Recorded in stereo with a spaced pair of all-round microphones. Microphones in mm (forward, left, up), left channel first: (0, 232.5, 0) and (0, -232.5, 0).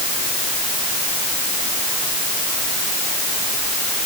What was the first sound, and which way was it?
Only background noise.